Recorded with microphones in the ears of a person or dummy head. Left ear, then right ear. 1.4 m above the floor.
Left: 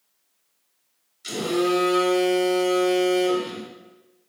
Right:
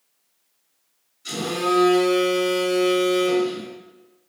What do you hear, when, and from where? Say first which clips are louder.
1.2 s a phone buzzing: even; 65° left (ahead or behind), 1.9 m